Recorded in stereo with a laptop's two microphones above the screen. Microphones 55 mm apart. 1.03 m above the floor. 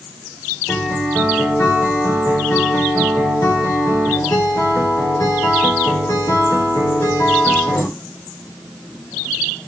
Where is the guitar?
65° left (ahead or behind), 2.5 m.